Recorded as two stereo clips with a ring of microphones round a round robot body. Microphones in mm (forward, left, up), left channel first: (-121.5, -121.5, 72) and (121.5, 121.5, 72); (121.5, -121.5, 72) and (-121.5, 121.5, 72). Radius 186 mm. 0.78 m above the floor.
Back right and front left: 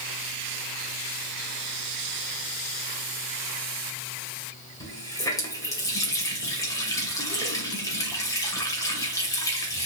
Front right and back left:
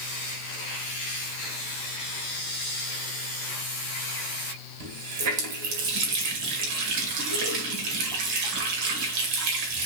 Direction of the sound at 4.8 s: 145° left.